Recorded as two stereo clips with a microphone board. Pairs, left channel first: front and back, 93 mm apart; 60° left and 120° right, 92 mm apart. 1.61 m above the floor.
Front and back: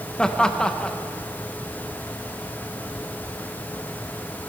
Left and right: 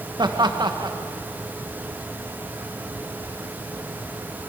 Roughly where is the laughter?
Right.